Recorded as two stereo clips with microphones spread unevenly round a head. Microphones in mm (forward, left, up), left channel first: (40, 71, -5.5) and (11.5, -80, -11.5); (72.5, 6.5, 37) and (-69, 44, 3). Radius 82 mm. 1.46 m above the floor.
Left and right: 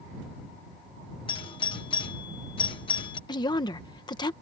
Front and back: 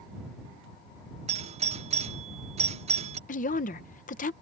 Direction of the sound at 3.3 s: 15° left.